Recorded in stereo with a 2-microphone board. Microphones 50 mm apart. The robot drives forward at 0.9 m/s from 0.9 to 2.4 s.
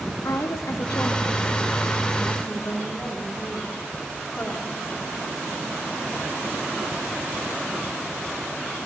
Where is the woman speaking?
85° left, 1.0 m; by 4.8 s 35° left (ahead or behind), 1.7 m.